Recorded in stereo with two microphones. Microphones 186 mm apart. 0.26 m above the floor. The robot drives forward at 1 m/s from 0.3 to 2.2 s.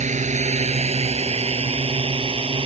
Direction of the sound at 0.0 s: 40° right (ahead or behind).